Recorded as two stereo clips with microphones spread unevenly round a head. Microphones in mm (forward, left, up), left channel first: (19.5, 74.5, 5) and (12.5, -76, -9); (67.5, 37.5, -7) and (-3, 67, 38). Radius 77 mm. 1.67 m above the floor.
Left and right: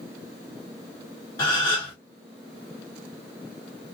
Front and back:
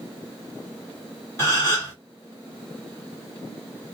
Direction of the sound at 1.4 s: 50° left.